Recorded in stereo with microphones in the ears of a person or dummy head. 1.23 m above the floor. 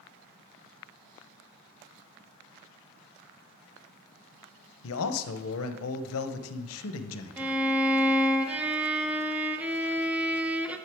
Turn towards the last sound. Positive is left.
turn(degrees=-10)  # may be behind; listen again after turning